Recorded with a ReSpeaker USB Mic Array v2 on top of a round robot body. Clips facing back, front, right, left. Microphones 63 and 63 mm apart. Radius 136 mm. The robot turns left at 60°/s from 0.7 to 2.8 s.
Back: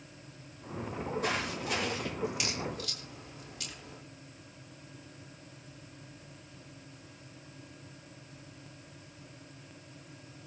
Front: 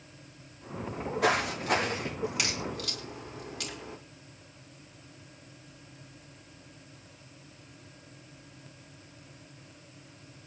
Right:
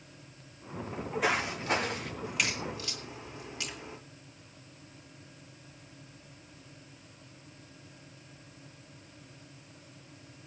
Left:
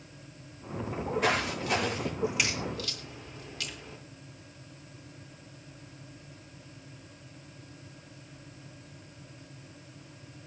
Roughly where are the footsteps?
Ahead.